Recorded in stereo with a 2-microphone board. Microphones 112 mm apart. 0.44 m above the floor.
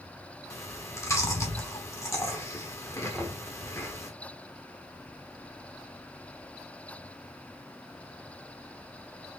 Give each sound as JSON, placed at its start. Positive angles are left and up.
{"t": 0.5, "sound": "chewing", "side_deg": 25, "distance_m": 1.1}
{"t": 3.1, "sound": "knocking", "side_deg": 0, "distance_m": 1.1}